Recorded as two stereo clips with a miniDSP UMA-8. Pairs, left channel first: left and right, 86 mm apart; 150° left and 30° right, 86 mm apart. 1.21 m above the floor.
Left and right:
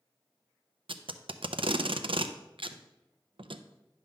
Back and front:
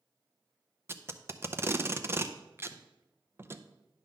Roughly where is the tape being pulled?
Right.